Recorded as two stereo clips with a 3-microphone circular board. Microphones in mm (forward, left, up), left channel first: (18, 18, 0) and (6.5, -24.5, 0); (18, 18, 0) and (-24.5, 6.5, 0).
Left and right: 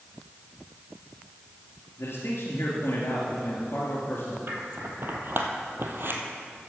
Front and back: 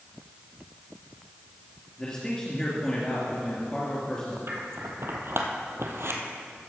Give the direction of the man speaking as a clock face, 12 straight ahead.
9 o'clock.